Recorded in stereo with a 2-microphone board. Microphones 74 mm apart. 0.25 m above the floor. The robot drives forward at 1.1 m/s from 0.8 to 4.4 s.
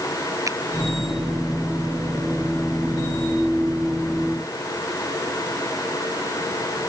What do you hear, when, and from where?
0.5 s a finger snap: 45° right (ahead or behind)